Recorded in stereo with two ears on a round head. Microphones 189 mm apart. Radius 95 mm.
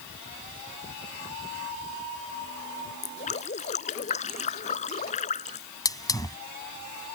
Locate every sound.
3.0 s dripping: 35° left (ahead or behind)
5.8 s a hiss: 20° left (ahead or behind)